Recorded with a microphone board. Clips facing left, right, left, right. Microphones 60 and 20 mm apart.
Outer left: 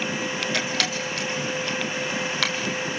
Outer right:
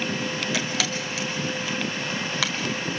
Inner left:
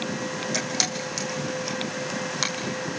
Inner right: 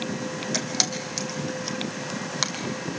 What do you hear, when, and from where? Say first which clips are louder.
0.5 s a camera shutter: outer left 1 dB, inner right 1 dB; 5° right (ahead or behind), 2.5 m